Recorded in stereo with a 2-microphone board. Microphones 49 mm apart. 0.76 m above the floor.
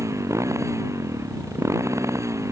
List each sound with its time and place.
0.0 s a motorcycle: 85° right